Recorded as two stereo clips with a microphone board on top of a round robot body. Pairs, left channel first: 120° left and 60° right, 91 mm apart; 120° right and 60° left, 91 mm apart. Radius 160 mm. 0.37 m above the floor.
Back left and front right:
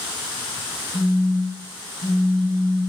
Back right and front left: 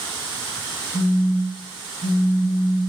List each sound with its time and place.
0.9 s a phone buzzing: 160° left, 0.7 m